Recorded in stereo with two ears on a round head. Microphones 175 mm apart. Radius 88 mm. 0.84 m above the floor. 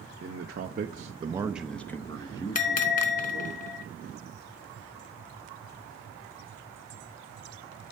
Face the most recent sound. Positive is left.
turn(degrees=40)  # may be behind; listen again after turning